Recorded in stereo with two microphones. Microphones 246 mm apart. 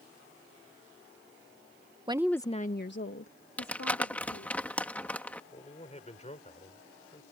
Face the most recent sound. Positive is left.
turn(degrees=25)  # may be behind; listen again after turning